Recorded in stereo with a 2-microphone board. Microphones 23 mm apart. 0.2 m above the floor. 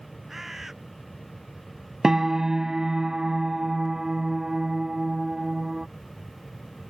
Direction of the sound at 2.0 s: 25° right (ahead or behind).